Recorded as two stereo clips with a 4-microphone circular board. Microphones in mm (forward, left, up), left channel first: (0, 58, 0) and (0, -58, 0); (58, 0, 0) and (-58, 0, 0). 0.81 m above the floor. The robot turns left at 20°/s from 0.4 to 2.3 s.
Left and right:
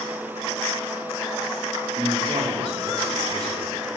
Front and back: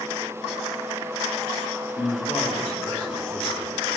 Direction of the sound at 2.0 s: 65° right.